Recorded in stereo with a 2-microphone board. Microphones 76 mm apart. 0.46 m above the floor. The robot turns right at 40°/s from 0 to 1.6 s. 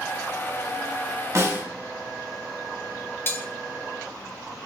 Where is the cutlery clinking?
30° left (ahead or behind), 0.6 m.